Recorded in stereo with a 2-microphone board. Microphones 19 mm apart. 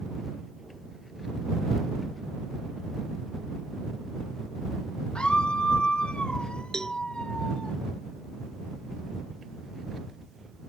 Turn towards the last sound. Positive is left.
turn(degrees=30)  # may be behind; listen again after turning